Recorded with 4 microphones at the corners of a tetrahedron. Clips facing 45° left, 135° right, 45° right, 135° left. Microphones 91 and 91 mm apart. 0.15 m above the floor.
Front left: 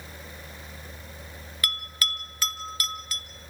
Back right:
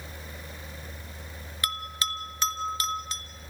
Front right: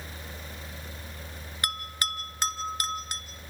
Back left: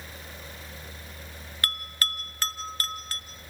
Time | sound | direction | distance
1.6 | a bell | 95° right | 1.5 m